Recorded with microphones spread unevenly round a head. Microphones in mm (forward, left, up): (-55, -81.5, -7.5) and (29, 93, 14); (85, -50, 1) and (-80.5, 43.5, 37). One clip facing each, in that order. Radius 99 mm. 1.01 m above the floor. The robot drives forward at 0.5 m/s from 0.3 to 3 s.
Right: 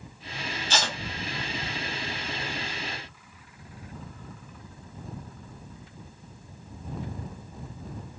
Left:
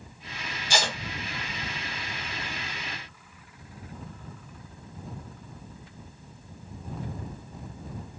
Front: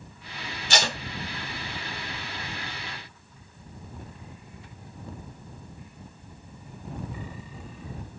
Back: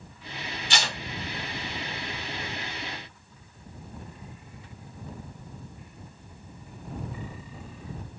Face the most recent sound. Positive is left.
turn(degrees=-125)